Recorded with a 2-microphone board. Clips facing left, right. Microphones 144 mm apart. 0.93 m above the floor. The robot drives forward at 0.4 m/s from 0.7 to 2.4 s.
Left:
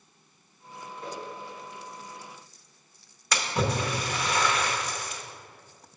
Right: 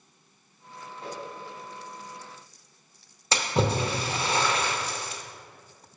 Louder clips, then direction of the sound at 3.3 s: Right 2 dB; 30° right (ahead or behind).